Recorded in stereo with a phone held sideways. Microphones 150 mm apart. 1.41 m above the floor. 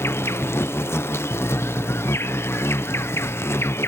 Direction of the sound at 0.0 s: 15° left (ahead or behind).